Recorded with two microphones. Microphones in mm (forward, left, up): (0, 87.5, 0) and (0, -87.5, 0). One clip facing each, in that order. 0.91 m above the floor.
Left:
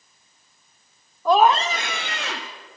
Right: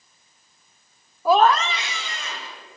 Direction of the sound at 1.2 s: 10° right (ahead or behind).